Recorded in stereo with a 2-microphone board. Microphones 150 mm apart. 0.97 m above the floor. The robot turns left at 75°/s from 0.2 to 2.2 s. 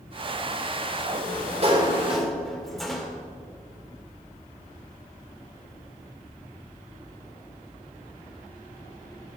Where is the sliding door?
100° right, 1.7 m; by 3.1 s straight behind, 1.7 m.